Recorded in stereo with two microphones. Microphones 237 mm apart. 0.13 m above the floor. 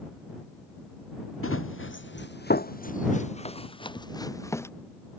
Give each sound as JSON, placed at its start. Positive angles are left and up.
{"t": 1.4, "sound": "running footsteps", "side_deg": 65}